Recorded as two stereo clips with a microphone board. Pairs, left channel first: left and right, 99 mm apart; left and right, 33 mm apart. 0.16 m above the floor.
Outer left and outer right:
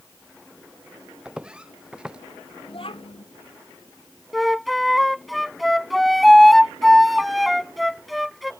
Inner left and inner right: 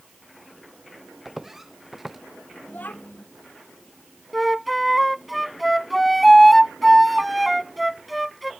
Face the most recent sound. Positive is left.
turn(degrees=0)  # may be behind; listen again after turning